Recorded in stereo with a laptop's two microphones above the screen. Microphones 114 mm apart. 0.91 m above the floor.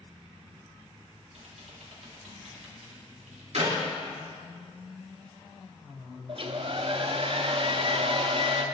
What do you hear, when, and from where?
1.3 s typing on a keyboard: 70° right (ahead or behind), 1.8 m
3.5 s a clap: 75° right (ahead or behind), 2 m
6.3 s a hair dryer: 50° right (ahead or behind), 0.6 m